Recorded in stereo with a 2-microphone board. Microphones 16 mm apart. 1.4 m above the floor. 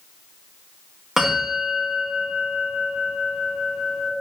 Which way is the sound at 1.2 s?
35° right (ahead or behind).